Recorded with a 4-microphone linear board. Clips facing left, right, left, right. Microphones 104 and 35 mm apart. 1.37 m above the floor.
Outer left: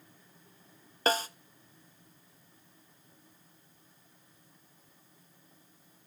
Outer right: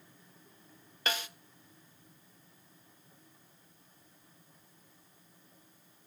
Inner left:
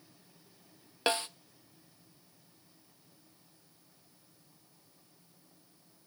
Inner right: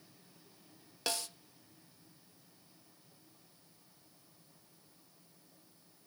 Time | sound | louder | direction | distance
1.1 | a snare drum | outer left 8 dB, inner left 8 dB | 35° left (ahead or behind) | 0.7 m